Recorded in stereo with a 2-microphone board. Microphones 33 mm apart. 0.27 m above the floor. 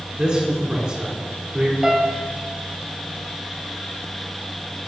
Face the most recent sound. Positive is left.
turn(degrees=-20)  # may be behind; listen again after turning